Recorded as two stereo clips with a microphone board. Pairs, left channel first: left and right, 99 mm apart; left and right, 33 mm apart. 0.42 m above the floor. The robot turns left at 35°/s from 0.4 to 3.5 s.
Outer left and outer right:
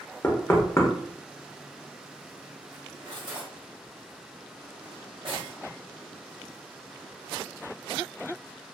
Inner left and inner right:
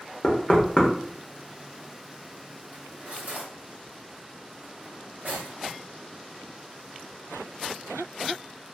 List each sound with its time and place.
0.2 s knocking: 20° left (ahead or behind), 0.6 m; by 0.9 s 30° left (ahead or behind), 0.6 m
2.7 s cutlery clinking: 45° right (ahead or behind), 1.5 m; by 5.6 s 65° right (ahead or behind), 1.5 m